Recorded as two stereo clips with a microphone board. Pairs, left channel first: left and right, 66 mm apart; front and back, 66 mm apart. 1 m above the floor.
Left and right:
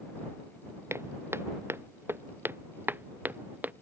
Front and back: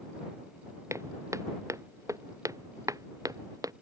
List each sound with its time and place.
0.9 s footsteps: 140° right; by 3.7 s 155° right